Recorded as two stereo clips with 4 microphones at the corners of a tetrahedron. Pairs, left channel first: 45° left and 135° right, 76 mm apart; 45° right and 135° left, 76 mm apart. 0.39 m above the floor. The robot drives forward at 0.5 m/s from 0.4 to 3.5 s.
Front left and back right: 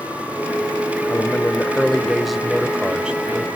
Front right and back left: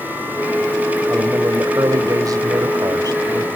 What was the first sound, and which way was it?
A man speaking, 105° left.